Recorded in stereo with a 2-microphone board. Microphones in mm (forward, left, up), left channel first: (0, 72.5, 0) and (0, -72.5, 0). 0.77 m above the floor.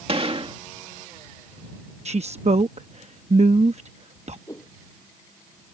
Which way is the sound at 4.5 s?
25° left (ahead or behind).